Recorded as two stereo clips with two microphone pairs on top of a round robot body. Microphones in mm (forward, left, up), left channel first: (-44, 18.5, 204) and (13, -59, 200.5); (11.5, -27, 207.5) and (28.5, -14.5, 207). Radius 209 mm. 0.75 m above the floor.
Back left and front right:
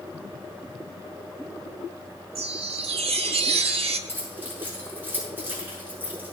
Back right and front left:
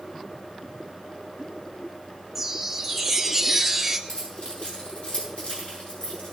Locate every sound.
2.4 s a chime: 40° right, 0.5 m
4.1 s keys jangling: 120° right, 7 m